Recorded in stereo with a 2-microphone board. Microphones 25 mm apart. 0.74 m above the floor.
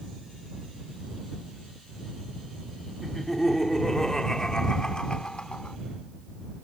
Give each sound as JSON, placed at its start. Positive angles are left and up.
{"t": 3.0, "sound": "laughter", "side_deg": 5}